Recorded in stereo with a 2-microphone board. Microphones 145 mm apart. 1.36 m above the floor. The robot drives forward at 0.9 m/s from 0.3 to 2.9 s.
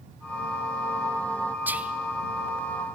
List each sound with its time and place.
1.7 s whispering: 10° right (ahead or behind), 0.7 m